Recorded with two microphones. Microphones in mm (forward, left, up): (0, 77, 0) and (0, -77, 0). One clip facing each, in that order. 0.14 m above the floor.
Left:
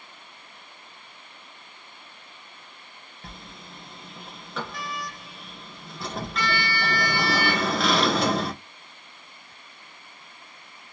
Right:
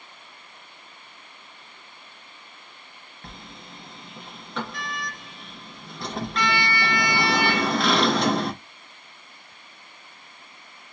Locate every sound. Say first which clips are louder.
3.2 s a sliding door: right 1 dB; centre (ahead or behind), 1.3 m